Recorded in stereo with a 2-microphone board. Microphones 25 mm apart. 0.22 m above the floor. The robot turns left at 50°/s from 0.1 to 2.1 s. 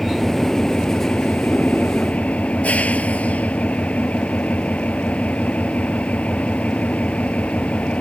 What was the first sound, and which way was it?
An engine running, straight behind.